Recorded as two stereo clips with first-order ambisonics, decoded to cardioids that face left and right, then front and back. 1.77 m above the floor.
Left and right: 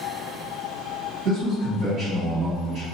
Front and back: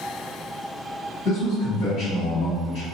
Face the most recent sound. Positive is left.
turn(degrees=-45)